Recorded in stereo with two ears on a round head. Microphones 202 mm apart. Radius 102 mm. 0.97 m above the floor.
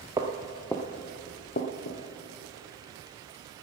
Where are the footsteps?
15° right (ahead or behind), 1.0 m; by 2.0 s 50° left (ahead or behind), 1.4 m.